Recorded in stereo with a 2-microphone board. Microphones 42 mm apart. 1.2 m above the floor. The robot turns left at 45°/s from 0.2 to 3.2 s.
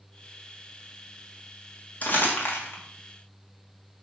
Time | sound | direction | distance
2.0 | crumpling | 40° left (ahead or behind) | 2 m